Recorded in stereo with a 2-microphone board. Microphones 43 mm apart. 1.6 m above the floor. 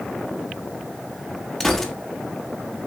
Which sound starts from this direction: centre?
A gunshot, at 1.6 s.